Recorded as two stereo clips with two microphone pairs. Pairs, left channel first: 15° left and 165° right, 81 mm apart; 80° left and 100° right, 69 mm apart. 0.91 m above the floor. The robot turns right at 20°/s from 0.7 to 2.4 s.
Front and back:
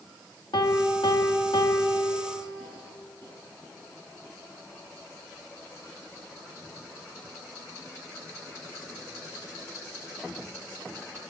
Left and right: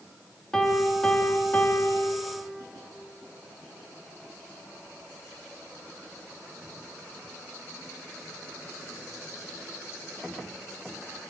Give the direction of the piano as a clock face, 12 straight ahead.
12 o'clock.